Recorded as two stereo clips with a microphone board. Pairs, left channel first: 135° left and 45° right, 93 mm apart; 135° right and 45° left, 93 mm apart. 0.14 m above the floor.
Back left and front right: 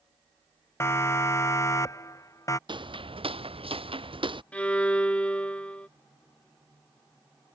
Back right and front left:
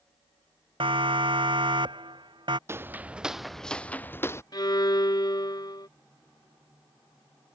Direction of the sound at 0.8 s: 70° left.